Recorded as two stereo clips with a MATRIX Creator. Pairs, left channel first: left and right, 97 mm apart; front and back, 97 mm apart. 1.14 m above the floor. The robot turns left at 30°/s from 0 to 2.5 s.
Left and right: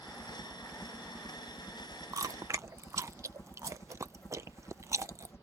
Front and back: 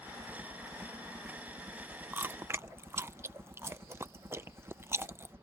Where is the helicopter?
150° right; by 5.5 s 135° left.